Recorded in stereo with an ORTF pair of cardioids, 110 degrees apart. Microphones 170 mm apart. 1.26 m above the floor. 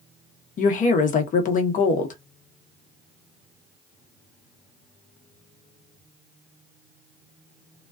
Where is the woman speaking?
50° left, 0.9 m.